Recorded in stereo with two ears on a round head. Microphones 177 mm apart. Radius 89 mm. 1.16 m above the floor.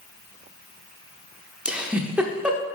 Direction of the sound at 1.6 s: 5° right (ahead or behind).